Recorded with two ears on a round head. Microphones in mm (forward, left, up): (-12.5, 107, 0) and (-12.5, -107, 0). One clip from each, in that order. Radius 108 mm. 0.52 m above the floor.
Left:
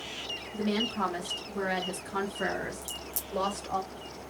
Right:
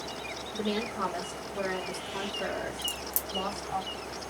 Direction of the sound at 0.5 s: Centre (ahead or behind).